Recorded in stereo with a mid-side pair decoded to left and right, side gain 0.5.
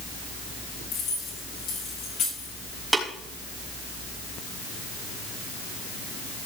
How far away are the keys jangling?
About 6 m.